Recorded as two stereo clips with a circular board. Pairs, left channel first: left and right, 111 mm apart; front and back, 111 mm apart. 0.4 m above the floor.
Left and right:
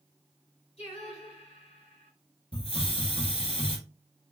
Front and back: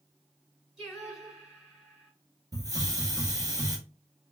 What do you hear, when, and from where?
0.8 s singing: 90° left, 1.6 m
2.5 s a hiss: 125° left, 1.2 m